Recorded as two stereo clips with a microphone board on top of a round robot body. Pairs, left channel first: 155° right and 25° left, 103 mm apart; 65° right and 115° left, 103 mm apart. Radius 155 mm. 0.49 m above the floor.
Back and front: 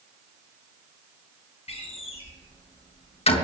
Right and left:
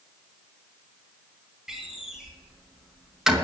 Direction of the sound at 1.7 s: 160° right.